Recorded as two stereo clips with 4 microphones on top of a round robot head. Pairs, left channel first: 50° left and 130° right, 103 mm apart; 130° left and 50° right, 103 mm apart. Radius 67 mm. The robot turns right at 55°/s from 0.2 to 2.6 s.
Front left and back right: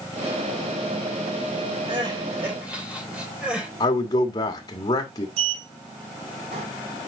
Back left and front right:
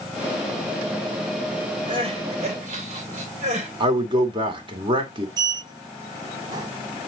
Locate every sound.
1.9 s crying: 90° right, 3.5 m; by 3.7 s 50° right, 3.5 m
3.8 s a man speaking: 5° right, 2 m
5.4 s a sliding door: 105° right, 1.4 m